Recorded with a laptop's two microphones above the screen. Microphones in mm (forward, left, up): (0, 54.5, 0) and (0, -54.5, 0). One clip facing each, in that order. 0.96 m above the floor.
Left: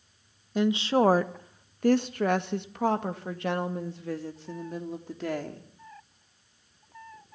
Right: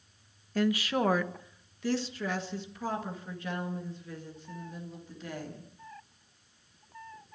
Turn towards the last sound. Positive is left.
turn(degrees=75)  # may be behind; listen again after turning